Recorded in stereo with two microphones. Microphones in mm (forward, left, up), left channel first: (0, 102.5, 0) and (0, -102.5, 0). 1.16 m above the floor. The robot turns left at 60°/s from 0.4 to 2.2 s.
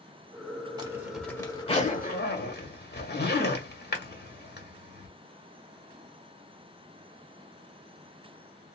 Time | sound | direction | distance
0.8 | a zipper | 20° right (ahead or behind) | 1.5 m